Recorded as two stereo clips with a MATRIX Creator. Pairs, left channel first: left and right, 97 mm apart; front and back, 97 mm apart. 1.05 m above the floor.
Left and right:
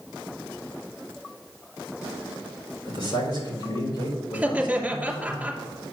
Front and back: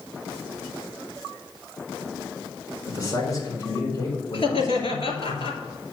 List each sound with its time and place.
2.9 s a man speaking: 55° left, 4 m
4.3 s laughter: 10° right, 2.5 m